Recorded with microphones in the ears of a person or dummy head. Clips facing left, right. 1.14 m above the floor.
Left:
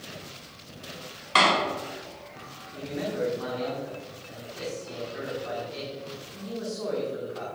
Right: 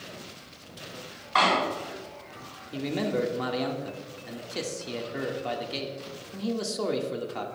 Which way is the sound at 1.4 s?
45° left (ahead or behind).